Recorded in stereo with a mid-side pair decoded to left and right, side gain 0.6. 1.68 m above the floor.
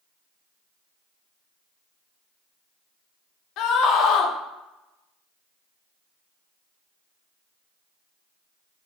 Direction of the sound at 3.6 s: 65° left.